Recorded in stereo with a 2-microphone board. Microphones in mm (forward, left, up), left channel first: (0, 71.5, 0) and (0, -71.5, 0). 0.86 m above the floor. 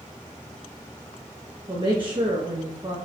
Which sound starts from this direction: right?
A woman speaking, at 1.7 s.